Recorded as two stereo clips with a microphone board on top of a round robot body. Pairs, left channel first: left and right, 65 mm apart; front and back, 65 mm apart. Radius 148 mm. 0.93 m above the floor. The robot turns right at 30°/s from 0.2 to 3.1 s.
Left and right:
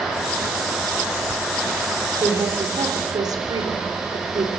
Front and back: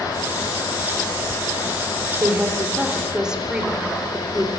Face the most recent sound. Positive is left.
turn(degrees=-100)